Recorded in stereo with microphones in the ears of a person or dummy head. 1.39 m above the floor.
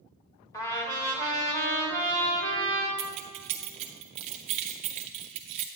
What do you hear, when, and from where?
0.5 s a trumpet: 15° left (ahead or behind), 1.4 m
3.0 s keys jangling: 30° right (ahead or behind), 0.6 m